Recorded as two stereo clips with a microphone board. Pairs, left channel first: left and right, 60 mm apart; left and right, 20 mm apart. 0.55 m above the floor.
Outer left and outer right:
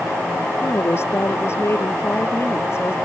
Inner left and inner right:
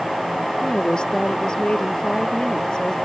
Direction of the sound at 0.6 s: 50° left (ahead or behind).